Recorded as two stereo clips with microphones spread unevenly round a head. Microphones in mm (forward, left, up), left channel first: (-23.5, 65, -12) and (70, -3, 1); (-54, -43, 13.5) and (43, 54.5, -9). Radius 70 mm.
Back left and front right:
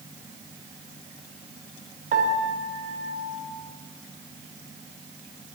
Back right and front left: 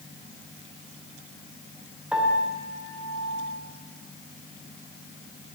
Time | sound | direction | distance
2.1 | a piano | 40° right | 2 m